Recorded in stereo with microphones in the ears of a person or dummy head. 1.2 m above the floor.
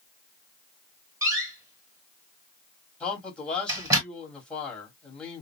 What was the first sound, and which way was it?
A door slam, 20° right (ahead or behind).